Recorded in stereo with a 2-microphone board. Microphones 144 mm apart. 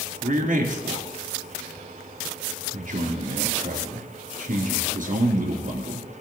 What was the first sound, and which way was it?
A man speaking, 70° right (ahead or behind).